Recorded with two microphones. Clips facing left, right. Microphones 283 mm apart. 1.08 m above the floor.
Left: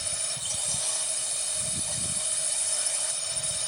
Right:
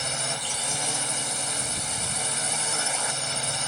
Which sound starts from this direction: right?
A drone, at 0.0 s.